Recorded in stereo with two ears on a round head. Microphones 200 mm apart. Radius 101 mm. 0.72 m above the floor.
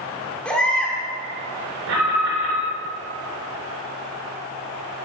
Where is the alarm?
55° right (ahead or behind), 3 m.